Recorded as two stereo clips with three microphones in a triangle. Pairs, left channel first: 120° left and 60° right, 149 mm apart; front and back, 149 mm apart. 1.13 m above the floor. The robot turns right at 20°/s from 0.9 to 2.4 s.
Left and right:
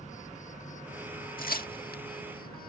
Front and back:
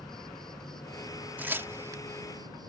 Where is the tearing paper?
100° left; by 2.0 s 115° left.